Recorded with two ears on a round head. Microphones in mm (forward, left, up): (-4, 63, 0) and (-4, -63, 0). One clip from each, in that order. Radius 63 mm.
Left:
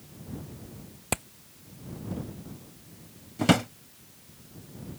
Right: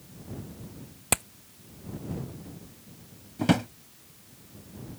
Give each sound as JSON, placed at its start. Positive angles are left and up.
{"t": 1.1, "sound": "hammering", "side_deg": -25}
{"t": 3.4, "sound": "a drawer", "side_deg": 25}